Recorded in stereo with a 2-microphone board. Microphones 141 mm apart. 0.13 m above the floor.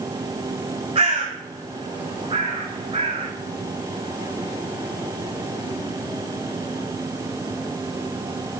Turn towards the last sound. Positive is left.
turn(degrees=-45)  # may be behind; listen again after turning